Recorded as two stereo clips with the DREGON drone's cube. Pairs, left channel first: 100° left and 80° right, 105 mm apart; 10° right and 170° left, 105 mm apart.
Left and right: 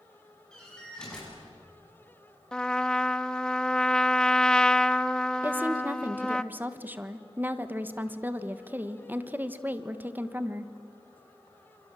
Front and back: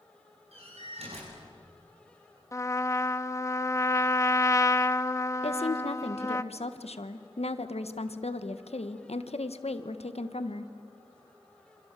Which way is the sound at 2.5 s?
20° left.